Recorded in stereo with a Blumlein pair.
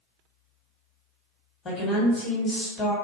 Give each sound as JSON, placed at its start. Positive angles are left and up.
{"t": 1.6, "sound": "a woman speaking", "azimuth_deg": 20, "distance_m": 1.3}